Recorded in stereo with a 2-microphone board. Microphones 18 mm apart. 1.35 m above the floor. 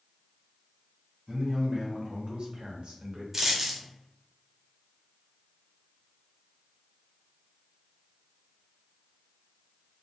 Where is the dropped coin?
20° right (ahead or behind), 0.6 m.